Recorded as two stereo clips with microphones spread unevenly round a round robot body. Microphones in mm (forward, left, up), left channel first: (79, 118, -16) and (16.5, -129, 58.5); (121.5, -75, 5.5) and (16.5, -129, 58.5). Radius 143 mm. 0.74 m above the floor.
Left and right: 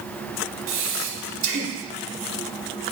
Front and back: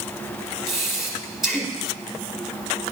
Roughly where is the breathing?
Ahead right.